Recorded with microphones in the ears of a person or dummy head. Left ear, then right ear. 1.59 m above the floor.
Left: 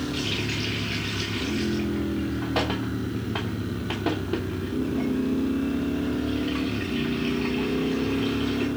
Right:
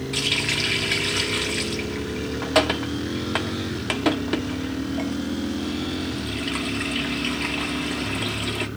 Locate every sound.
0.1 s a running tap: 45° right (ahead or behind), 1.0 m